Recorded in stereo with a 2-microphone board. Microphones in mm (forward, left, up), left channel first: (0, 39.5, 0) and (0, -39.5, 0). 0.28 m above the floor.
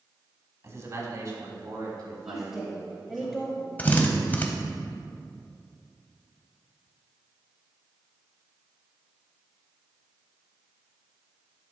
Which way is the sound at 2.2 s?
5° right (ahead or behind).